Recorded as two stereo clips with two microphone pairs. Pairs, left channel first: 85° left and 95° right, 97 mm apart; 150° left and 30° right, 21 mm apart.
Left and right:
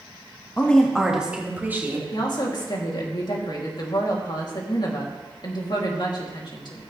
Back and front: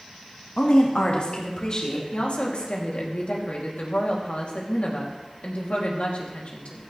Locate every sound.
0.6 s a woman speaking: 160° left, 1.5 m; by 2.0 s 160° right, 3 m
2.1 s a woman speaking: 125° left, 2.5 m